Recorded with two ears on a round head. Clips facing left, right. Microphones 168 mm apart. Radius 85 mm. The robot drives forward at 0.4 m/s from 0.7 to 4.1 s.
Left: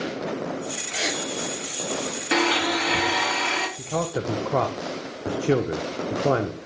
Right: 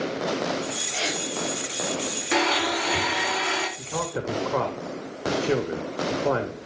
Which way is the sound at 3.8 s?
40° left (ahead or behind).